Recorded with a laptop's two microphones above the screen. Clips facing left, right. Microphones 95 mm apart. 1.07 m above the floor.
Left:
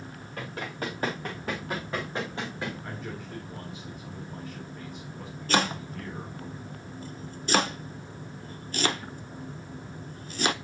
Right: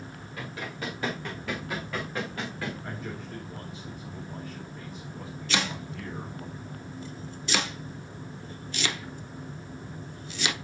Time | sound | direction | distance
0.4 | running footsteps | 50° left (ahead or behind) | 5 m
2.8 | a man speaking | centre (ahead or behind) | 4 m
5.5 | chopping | 45° left (ahead or behind) | 0.7 m